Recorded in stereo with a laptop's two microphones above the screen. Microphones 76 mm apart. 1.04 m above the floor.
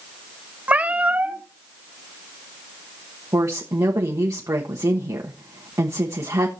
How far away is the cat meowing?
About 0.8 m.